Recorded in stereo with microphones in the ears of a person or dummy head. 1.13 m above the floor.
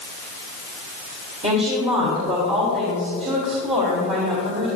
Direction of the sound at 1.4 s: 30° right (ahead or behind).